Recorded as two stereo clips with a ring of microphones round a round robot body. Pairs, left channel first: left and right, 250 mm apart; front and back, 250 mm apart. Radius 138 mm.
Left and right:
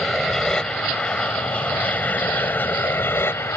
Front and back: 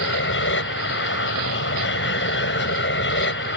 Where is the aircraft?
5° left; by 3.6 s 15° left.